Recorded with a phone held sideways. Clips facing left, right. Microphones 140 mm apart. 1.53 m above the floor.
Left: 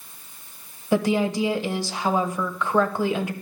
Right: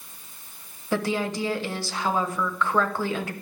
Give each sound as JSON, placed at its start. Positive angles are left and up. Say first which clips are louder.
{"t": 0.9, "sound": "a woman speaking", "louder": "left 5 dB", "side_deg": 15, "distance_m": 1.0}